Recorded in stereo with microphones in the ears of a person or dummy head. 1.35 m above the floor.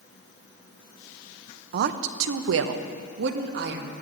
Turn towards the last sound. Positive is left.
turn(degrees=-55)  # may be behind; listen again after turning